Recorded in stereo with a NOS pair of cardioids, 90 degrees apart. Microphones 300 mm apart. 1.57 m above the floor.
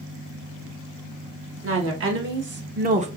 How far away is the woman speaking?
About 2 m.